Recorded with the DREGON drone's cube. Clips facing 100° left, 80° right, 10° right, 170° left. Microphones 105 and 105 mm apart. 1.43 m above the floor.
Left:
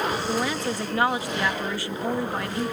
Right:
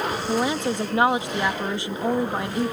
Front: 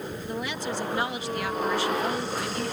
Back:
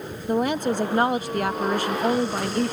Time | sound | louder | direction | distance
0.3 | a woman speaking | right 3 dB, back 11 dB | 145° right | ?